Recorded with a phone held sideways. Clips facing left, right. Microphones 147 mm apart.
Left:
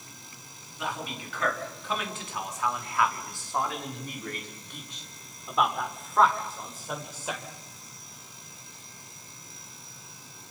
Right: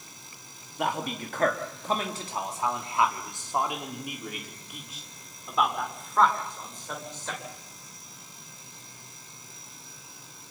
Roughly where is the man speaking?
Right.